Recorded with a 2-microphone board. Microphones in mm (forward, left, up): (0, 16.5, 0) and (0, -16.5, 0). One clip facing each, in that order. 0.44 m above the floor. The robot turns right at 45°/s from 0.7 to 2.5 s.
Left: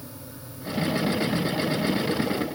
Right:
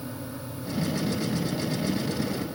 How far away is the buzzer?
I don't hear a buzzer.